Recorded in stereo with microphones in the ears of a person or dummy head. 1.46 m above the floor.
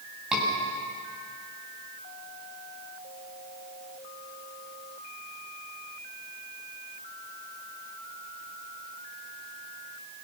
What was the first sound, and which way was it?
A scream, 5° right (ahead or behind).